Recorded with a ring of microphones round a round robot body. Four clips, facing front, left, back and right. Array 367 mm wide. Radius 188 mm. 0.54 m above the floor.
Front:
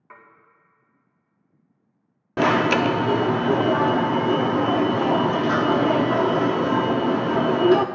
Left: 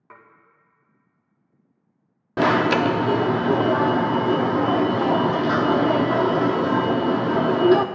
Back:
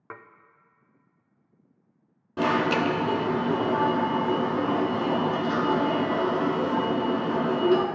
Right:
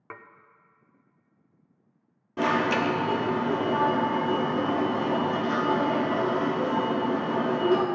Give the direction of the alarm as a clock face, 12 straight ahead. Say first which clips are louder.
Left 6 dB, front 5 dB; 10 o'clock.